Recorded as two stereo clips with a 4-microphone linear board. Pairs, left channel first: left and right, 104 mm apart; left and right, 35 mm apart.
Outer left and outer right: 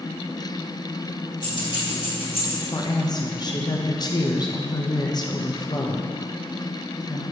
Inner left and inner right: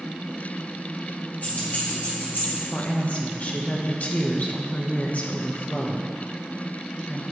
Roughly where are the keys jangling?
Left.